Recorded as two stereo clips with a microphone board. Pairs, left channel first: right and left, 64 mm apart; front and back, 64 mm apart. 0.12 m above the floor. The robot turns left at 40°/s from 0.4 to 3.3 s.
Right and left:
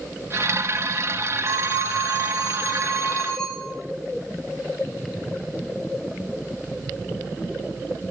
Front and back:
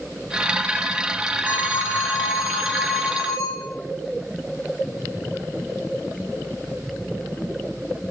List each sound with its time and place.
1.4 s a phone ringing: 60° left, 8 m; by 3.7 s 15° right, 8 m